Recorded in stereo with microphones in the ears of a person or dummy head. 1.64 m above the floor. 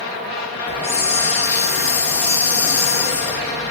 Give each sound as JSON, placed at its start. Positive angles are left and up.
{"t": 0.7, "sound": "a hiss", "side_deg": 25, "distance_m": 1.1}